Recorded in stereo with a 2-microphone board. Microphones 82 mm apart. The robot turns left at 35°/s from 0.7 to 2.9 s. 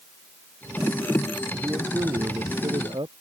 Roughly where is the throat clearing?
I don't hear throat clearing.